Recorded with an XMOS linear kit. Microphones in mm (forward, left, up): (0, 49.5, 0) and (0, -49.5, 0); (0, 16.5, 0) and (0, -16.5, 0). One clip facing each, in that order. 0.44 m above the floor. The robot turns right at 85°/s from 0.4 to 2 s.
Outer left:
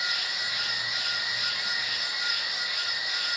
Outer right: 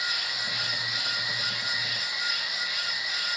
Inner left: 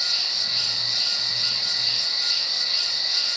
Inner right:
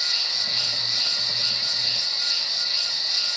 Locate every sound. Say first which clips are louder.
0.0 s an insect: even, even; 130° right, 1.4 m; by 3.4 s 10° left, 1.4 m